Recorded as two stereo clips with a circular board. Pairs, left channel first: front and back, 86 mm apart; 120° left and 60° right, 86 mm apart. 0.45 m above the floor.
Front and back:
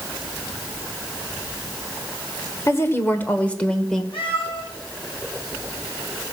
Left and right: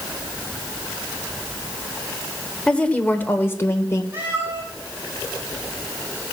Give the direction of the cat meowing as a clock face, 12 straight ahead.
12 o'clock.